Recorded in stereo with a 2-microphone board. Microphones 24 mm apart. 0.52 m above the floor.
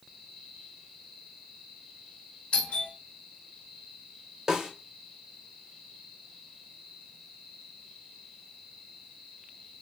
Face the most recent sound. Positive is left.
turn(degrees=-20)  # may be behind; listen again after turning